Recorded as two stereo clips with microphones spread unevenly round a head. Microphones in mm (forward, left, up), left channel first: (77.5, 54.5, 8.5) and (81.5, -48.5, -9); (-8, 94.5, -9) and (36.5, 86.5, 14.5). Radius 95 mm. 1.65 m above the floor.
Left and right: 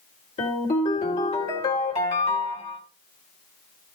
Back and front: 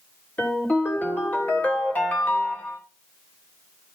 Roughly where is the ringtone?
Left.